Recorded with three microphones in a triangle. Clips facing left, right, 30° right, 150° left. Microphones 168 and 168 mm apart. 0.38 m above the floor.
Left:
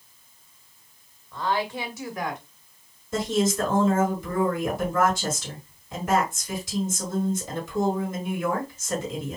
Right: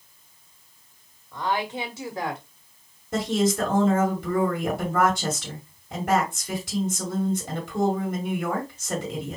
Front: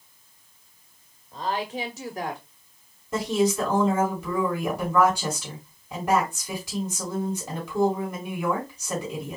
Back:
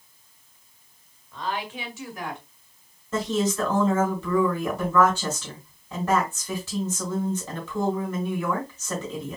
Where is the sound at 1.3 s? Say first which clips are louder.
Even, front 2 dB; 25° right, 1.7 m; by 2.4 s 50° right, 1.9 m.